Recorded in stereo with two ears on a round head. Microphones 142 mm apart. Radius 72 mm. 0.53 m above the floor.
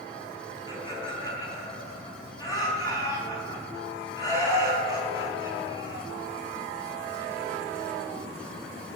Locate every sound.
0.7 s laughter: 25° left (ahead or behind), 4 m